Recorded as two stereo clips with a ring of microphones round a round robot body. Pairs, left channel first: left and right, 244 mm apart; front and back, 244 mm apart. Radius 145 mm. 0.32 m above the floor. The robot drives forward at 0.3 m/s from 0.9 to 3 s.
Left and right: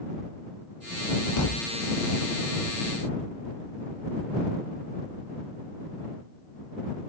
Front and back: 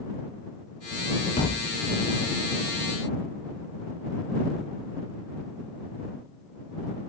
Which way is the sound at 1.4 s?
70° left.